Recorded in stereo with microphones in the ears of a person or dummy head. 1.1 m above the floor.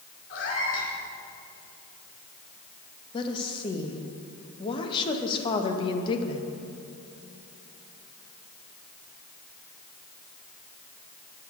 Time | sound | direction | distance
0.3 | a cat meowing | 70° left (ahead or behind) | 2.5 m
3.1 | a woman speaking | 30° left (ahead or behind) | 1.0 m